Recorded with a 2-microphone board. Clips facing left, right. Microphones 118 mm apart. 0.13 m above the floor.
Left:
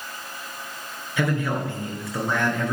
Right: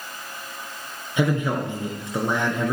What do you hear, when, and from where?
1.2 s a man speaking: 20° right (ahead or behind), 1.9 m